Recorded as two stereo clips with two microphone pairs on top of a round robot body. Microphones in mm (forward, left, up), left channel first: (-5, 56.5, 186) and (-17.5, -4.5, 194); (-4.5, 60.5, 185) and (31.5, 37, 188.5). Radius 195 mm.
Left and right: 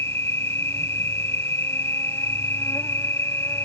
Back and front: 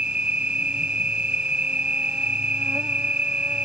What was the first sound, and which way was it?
An insect, 30° left.